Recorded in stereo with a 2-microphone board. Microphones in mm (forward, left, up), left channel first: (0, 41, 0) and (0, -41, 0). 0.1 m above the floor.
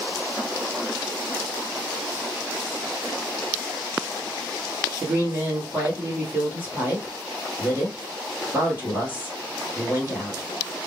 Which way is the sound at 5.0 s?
20° right (ahead or behind).